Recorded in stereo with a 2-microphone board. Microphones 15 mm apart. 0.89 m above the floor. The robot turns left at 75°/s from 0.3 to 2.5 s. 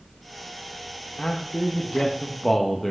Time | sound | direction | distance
1.2 | a man speaking | 110° left | 0.8 m